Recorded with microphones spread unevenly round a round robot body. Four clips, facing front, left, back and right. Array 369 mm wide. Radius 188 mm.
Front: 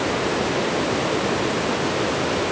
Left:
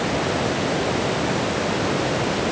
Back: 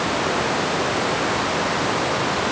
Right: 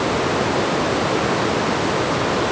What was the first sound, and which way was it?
Only background noise.